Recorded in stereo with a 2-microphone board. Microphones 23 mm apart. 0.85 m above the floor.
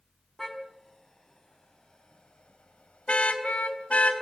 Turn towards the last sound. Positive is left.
turn(degrees=85)